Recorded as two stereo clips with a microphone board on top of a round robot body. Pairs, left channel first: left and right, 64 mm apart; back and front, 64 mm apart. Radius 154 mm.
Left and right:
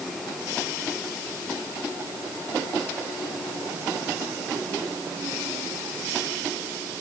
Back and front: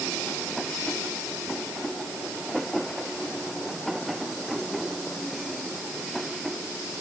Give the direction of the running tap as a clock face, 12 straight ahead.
I don't hear a running tap.